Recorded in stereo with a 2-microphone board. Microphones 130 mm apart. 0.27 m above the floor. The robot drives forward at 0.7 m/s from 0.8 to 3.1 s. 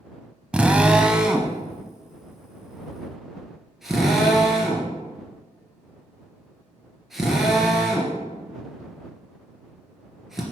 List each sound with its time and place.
0.5 s a drill: 10° right (ahead or behind), 0.7 m; by 10.4 s 5° right (ahead or behind), 2 m